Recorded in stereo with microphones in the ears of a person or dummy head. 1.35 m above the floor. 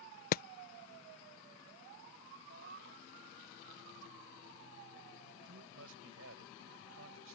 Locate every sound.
0.3 s hammering: 55° left (ahead or behind)
2.5 s a cat meowing: 50° right (ahead or behind)
5.5 s a man speaking: 85° right